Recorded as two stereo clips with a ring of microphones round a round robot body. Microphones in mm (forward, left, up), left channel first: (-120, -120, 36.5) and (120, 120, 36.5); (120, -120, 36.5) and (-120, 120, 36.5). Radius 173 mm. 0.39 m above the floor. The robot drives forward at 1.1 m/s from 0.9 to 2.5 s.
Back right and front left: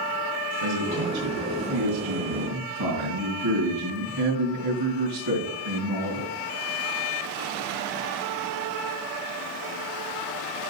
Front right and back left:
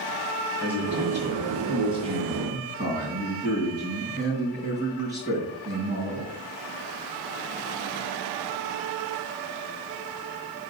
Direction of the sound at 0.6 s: 50° left.